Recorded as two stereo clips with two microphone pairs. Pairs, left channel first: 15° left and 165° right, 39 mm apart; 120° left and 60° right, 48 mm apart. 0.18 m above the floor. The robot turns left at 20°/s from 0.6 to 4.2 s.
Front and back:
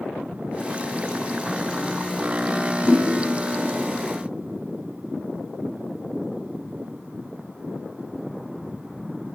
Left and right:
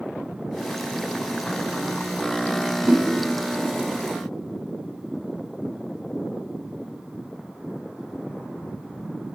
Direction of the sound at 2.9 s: 25° right.